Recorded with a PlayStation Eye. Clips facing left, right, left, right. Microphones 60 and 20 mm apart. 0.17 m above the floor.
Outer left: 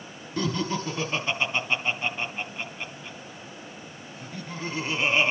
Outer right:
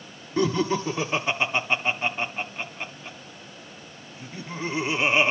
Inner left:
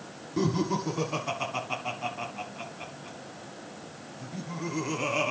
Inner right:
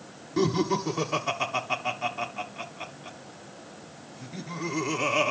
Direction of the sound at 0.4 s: 15° right (ahead or behind).